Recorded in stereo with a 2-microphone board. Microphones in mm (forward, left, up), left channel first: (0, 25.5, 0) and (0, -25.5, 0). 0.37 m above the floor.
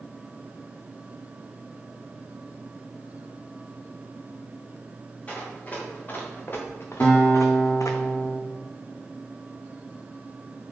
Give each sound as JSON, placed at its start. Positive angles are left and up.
{"t": 5.3, "sound": "running footsteps", "side_deg": 25, "distance_m": 4.0}
{"t": 7.0, "sound": "a guitar", "side_deg": 20, "distance_m": 3.0}